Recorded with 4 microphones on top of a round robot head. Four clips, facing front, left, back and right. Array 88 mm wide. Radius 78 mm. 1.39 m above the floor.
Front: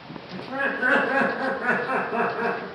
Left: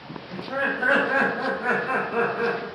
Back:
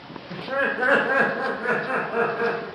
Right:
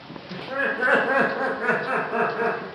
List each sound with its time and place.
0.3 s laughter: 165° right, 0.8 m; by 2.7 s 80° right, 1.4 m